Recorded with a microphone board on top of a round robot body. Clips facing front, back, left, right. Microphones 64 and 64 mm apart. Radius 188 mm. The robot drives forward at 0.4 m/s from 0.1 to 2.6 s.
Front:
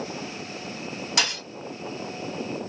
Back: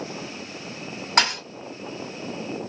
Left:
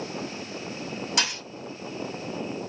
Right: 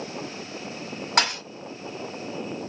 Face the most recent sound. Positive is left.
turn(degrees=-150)